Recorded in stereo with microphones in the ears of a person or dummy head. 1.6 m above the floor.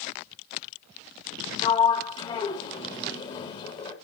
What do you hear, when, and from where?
1.6 s a sliding door: 35° left (ahead or behind), 2 m